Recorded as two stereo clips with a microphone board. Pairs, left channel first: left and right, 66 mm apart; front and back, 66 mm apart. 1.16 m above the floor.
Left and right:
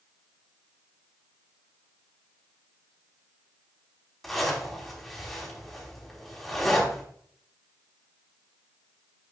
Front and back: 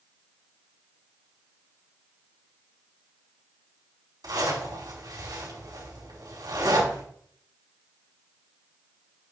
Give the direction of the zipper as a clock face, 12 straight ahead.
6 o'clock.